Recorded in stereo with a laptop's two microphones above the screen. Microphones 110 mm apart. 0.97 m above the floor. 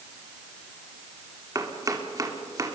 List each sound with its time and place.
1.6 s chopping: 30° right (ahead or behind), 1.9 m